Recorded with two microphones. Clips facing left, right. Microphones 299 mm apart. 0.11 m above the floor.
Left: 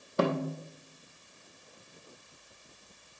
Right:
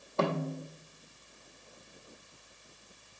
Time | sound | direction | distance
0.2 | a snare drum | 20° left (ahead or behind) | 1.2 m